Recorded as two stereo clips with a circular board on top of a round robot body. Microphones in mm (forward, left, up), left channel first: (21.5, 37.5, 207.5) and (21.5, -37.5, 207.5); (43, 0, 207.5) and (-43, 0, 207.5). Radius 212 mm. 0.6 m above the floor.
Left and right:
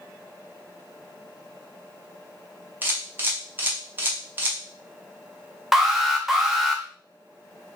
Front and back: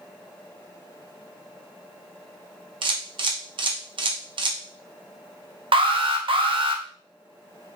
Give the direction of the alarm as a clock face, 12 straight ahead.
6 o'clock.